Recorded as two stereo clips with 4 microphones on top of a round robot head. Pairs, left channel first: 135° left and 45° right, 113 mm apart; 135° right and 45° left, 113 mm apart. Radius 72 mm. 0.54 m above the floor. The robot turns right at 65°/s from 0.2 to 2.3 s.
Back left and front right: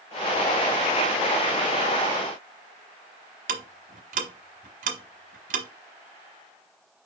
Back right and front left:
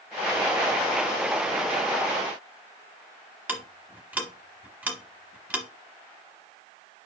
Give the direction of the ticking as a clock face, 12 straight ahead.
1 o'clock.